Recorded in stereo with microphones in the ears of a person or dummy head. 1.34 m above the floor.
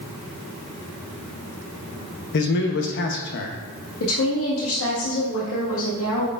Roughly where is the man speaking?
Left.